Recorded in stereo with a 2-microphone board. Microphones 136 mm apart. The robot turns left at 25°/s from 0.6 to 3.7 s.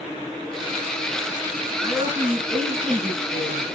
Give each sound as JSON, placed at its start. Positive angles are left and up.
{"t": 1.8, "sound": "a woman speaking", "azimuth_deg": -145, "distance_m": 7.0}